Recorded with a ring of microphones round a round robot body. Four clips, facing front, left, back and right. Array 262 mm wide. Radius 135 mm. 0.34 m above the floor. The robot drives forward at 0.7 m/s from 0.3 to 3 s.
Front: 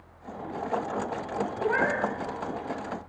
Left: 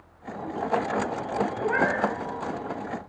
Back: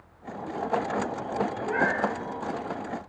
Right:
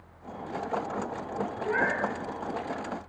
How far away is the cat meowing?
About 3 m.